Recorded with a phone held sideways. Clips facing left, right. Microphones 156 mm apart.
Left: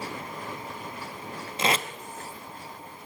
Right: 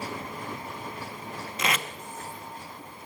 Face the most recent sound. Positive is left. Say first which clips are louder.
# left 4 dB
turn(degrees=30)  # may be behind; listen again after turning